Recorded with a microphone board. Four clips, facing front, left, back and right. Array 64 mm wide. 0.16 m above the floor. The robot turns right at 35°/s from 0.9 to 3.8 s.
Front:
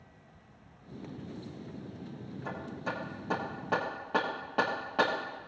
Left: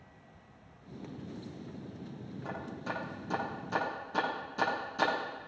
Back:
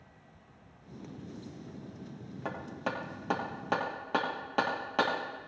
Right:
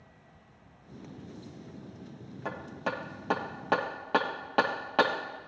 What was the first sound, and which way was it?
Hammering, 150° right.